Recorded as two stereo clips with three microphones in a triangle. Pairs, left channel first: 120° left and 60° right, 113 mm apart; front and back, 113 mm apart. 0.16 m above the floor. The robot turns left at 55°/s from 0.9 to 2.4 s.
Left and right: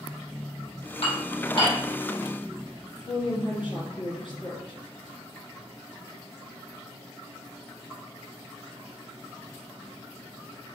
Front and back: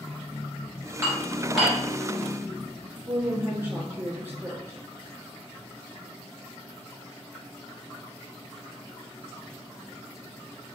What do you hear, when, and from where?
1.0 s dishes clattering: 120° left, 1.7 m; by 1.8 s 75° left, 1.7 m
3.1 s a woman speaking: 115° left, 1.8 m